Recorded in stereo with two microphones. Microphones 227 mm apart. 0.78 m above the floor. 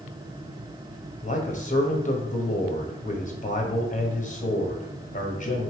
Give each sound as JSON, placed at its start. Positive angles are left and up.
{"t": 1.2, "sound": "a man speaking", "side_deg": 35, "distance_m": 0.9}